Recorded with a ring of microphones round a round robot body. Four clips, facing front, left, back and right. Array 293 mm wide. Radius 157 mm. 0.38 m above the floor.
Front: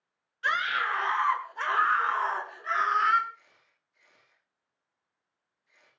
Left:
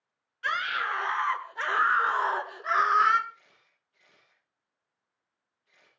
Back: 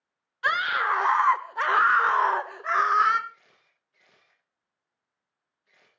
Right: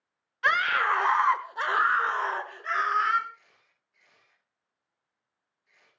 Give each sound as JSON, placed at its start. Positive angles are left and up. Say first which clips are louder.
{"t": 0.4, "sound": "a scream", "louder": "right 5 dB, back 4 dB", "azimuth_deg": -130, "distance_m": 2.0}
{"t": 3.3, "sound": "a camera shutter", "louder": "right 3 dB, front 4 dB", "azimuth_deg": 170, "distance_m": 9.5}